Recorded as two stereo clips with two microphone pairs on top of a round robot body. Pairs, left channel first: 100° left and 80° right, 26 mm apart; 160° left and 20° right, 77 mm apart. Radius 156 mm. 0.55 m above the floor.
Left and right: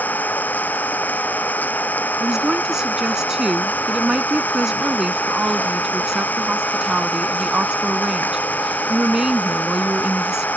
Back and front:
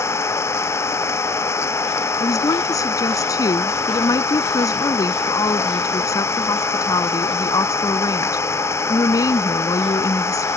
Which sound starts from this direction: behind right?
A woman speaking, at 2.2 s.